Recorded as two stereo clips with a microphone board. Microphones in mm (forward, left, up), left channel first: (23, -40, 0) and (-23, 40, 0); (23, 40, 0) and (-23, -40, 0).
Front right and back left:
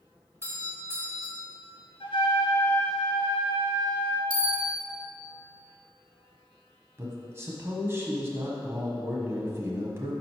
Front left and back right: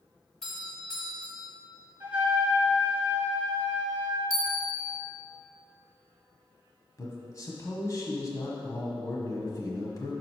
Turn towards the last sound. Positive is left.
turn(degrees=80)